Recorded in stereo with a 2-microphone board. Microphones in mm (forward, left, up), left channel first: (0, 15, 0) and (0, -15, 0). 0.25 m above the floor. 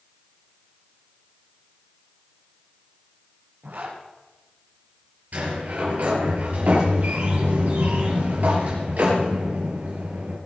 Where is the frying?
I don't hear frying.